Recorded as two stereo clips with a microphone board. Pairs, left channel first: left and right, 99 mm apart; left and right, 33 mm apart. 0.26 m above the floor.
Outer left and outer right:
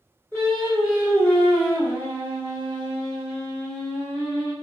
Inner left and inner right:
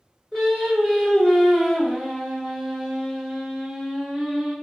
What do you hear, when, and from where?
0.3 s singing: 20° left (ahead or behind), 1.9 m